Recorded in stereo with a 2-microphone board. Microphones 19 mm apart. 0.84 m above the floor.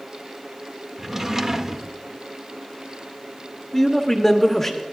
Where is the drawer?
15° right (ahead or behind), 0.6 m.